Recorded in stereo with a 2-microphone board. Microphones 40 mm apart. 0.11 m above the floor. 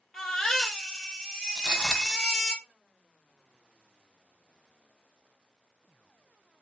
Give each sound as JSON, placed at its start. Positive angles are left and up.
{"t": 0.1, "sound": "a baby crying", "side_deg": 5, "distance_m": 1.6}
{"t": 1.6, "sound": "footsteps", "side_deg": 10, "distance_m": 1.5}